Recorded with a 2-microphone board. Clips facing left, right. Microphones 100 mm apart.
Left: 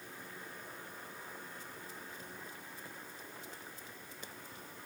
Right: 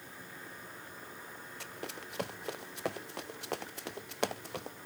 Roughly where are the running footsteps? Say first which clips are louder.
Right 5 dB; right.